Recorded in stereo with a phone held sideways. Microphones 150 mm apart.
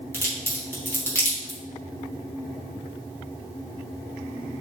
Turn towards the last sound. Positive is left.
turn(degrees=15)  # may be behind; listen again after turning